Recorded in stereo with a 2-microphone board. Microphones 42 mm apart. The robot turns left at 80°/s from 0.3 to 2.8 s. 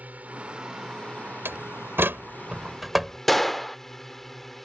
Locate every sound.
0.0 s a drone: 40° right (ahead or behind); by 4.7 s 10° left (ahead or behind)
1.4 s a door slam: 65° right (ahead or behind); by 3.2 s 10° right (ahead or behind)
3.3 s a gunshot: centre (ahead or behind)